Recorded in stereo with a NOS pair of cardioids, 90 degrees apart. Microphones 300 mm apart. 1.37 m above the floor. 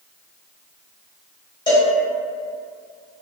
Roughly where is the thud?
No thud in this recording.